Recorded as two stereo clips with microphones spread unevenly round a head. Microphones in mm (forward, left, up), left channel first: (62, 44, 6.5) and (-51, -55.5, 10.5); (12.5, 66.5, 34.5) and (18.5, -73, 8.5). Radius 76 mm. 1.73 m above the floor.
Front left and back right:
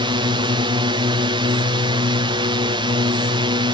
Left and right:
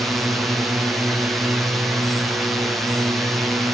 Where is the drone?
160° right.